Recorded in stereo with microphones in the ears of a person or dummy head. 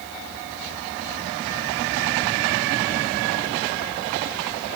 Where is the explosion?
No explosion in this recording.